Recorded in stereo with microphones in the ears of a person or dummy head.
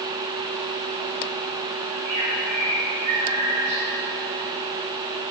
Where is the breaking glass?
No breaking glass in this recording.